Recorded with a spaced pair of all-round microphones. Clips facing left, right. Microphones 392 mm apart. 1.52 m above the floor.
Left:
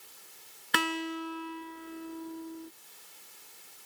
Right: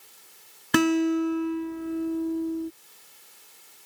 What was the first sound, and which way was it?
A guitar, 60° right (ahead or behind).